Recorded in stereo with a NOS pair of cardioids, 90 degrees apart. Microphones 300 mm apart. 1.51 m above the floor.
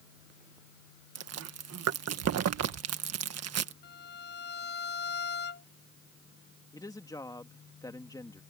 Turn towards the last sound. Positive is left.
turn(degrees=10)